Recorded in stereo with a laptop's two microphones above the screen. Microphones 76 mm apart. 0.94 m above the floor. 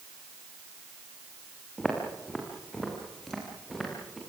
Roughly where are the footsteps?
Centre.